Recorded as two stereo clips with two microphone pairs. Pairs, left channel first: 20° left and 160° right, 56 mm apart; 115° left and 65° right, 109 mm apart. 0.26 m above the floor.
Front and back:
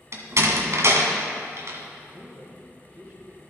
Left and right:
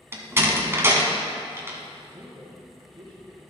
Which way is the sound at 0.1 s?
130° right.